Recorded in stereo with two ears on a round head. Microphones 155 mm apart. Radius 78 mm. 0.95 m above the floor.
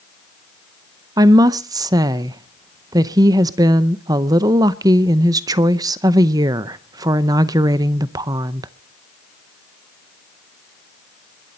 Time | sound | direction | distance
1.2 | a woman speaking | 20° right (ahead or behind) | 0.6 m